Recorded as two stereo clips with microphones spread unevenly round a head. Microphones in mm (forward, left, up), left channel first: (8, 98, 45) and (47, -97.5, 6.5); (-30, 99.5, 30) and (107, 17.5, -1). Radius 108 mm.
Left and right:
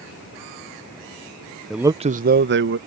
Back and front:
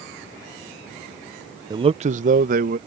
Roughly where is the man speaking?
Ahead.